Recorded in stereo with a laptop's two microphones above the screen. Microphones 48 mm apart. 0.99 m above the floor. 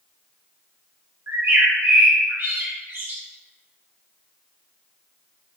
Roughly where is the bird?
Right.